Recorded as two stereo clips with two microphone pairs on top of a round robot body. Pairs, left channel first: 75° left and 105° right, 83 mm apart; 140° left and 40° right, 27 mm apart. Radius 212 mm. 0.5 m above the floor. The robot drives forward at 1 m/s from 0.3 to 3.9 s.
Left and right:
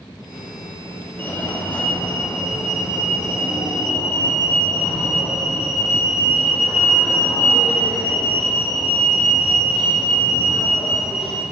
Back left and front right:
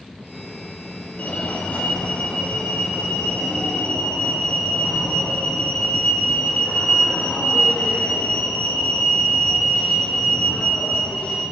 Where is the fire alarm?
140° left, 2.5 m; by 11.4 s 165° left, 4.5 m.